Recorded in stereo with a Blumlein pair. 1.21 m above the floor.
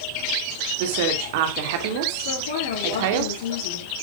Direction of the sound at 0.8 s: 50° right.